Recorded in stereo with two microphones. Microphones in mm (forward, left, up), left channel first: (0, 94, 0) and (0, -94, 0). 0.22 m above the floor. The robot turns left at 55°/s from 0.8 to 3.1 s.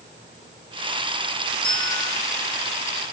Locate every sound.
1.6 s a bell: 75° right (ahead or behind), 6 m; by 2.1 s 50° right (ahead or behind), 6 m